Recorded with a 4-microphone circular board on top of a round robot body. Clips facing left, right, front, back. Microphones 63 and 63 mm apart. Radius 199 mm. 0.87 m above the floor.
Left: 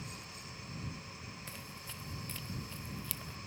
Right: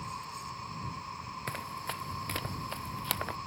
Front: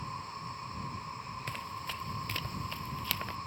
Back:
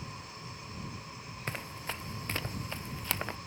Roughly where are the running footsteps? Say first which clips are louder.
Right 11 dB, back 3 dB; behind right.